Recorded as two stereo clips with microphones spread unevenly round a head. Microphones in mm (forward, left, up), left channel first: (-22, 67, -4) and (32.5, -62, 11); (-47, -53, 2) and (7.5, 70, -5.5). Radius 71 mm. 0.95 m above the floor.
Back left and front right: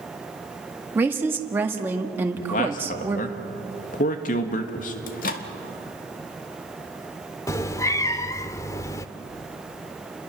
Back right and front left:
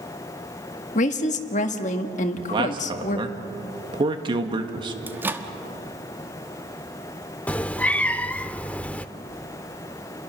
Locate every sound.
0.9 s a woman speaking: 145° right, 1.6 m
2.4 s a man speaking: 115° left, 1.6 m
5.1 s a microwave: 140° left, 1.4 m
7.5 s a cat meowing: straight behind, 0.7 m